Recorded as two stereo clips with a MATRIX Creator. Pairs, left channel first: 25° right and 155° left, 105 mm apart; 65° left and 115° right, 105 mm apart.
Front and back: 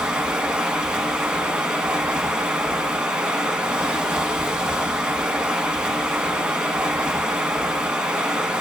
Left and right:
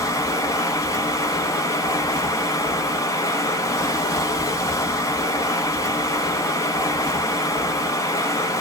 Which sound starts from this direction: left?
Running water, at 0.0 s.